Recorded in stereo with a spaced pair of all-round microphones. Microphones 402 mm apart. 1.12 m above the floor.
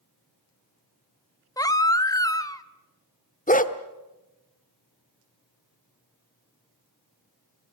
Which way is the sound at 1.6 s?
10° left (ahead or behind).